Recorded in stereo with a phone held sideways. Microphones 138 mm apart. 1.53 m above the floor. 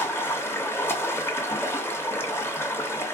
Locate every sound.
0.0 s running water: 15° left (ahead or behind), 1.1 m